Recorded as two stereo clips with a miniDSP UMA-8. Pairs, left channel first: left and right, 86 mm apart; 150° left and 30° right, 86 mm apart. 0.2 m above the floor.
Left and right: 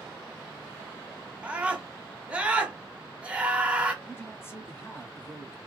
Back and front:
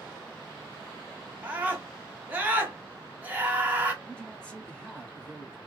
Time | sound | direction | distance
1.4 | a scream | 45° right | 1.0 m
4.0 | a man speaking | 85° left | 1.1 m